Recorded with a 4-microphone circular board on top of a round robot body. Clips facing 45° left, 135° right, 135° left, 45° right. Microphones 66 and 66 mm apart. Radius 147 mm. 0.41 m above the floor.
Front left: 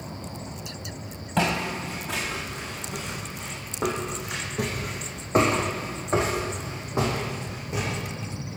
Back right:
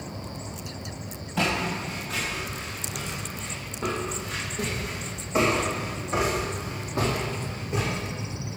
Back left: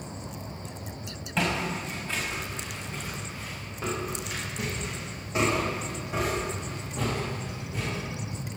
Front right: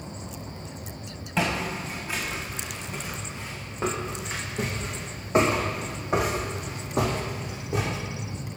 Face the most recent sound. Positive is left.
turn(degrees=-40)